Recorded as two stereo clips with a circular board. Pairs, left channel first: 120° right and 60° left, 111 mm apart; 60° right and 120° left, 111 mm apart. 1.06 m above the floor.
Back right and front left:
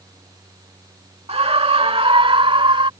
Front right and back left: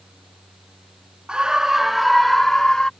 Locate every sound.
1.3 s a scream: 40° left; by 2.9 s 25° left